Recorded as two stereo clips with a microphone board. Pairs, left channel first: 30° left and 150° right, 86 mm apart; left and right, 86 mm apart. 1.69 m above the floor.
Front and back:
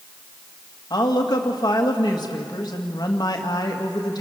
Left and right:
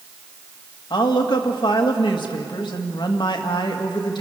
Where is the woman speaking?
65° left, 2 m.